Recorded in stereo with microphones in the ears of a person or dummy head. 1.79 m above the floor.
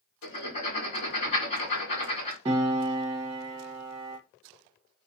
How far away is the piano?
About 0.6 m.